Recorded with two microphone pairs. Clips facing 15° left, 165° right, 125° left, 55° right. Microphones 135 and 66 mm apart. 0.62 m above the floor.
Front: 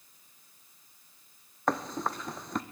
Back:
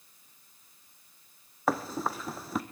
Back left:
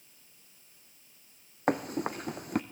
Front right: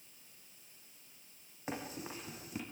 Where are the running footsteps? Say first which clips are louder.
Back 1 dB, back left 13 dB; 110° left, 1.4 m.